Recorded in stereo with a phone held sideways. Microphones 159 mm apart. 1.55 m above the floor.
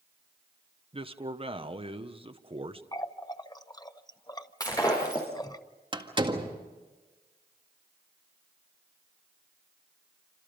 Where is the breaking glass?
20° left (ahead or behind), 6.5 m.